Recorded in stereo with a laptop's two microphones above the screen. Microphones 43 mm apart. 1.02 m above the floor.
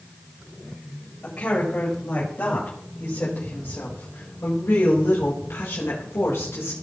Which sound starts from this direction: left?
A woman speaking, at 1.2 s.